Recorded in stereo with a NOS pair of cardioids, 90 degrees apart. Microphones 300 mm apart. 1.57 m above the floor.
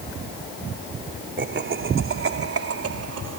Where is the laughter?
40° right; by 3.4 s 60° right.